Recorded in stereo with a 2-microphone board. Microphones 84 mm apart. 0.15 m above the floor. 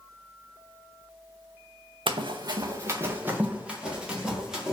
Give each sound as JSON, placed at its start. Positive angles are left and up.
{"t": 2.1, "sound": "running footsteps", "side_deg": -70, "distance_m": 0.6}